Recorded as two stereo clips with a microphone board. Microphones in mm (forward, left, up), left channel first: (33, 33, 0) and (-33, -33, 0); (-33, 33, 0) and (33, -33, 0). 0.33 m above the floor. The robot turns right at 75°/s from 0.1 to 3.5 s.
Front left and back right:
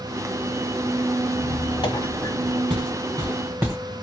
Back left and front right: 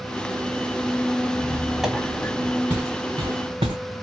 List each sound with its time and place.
1.3 s a squeak: 5° left, 1.3 m; by 2.6 s 100° left, 1.3 m
2.7 s footsteps: 115° right, 2.5 m; by 3.8 s 70° right, 1.8 m